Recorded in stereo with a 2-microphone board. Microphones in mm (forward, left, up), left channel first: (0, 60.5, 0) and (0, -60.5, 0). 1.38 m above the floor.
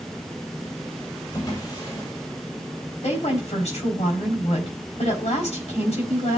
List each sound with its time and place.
1.3 s a drawer: 40° left (ahead or behind), 8 m
3.0 s a woman speaking: 85° left, 4.5 m